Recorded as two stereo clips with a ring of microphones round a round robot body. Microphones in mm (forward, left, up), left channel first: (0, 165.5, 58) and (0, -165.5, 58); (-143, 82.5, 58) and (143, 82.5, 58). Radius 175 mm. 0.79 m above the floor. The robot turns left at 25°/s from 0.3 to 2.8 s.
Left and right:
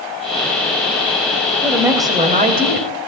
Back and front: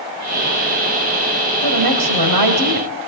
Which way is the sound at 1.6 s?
Straight ahead.